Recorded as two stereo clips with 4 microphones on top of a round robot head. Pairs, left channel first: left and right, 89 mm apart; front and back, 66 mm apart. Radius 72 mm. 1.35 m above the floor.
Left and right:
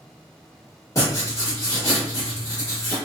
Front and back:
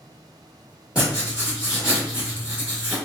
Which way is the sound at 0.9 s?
125° left.